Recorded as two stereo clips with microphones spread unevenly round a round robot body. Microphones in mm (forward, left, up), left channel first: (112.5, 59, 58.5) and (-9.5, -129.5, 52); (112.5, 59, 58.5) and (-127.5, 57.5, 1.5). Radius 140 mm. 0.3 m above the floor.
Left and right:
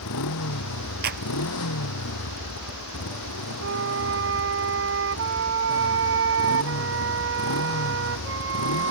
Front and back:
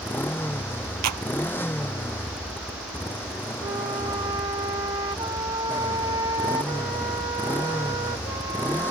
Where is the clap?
Straight behind.